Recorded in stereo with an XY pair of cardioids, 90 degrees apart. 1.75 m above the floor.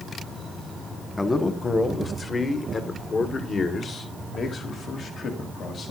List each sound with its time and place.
1.2 s a man speaking: 20° left, 1.6 m; by 5.9 s 65° left, 3.5 m